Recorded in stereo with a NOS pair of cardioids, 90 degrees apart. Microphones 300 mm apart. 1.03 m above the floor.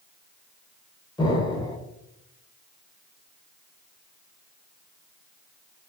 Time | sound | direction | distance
1.2 | an explosion | 15° left | 0.7 m